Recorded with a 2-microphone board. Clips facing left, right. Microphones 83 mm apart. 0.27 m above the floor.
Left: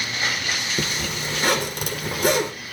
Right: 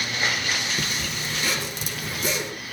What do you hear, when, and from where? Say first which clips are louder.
0.8 s a zipper: left 3 dB; 60° left (ahead or behind), 2.5 m